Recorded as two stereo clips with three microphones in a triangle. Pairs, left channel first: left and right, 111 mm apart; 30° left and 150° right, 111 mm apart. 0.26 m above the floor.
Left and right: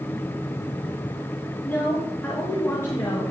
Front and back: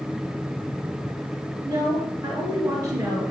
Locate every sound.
1.6 s a woman speaking: 165° left, 4 m; by 3.3 s 150° left, 5 m